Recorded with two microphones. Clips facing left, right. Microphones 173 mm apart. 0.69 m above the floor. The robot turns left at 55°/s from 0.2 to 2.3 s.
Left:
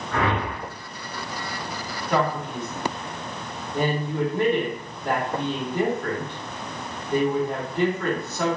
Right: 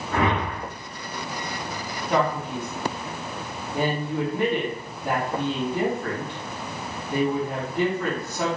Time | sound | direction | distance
0.1 | a whoosh | 15° right (ahead or behind) | 1.5 m
2.1 | a man speaking | 20° right (ahead or behind) | 1.5 m